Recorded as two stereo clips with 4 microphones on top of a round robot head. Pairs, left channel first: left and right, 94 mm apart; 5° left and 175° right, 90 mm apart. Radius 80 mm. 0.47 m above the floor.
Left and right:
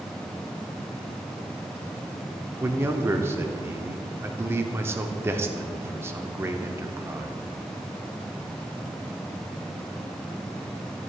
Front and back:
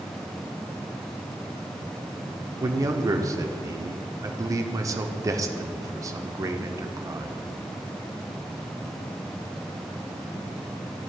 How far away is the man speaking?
About 0.9 m.